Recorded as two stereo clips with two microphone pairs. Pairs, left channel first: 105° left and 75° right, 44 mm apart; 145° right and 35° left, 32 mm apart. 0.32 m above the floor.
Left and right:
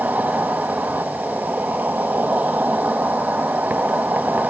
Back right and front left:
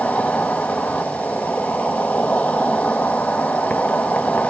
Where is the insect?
120° right, 1.0 m.